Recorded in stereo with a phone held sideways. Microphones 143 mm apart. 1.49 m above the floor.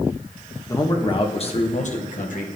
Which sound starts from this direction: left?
A man speaking, at 0.7 s.